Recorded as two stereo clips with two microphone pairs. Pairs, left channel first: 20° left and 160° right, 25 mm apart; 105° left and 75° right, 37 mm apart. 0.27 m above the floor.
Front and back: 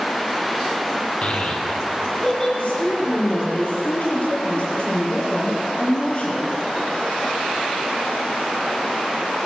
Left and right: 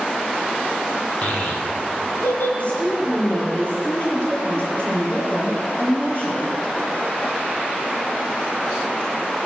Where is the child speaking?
50° left, 2.5 m; by 2.5 s 90° left, 3 m.